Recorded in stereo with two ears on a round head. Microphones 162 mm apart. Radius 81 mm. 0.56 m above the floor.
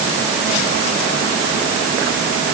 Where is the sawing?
No sawing in this recording.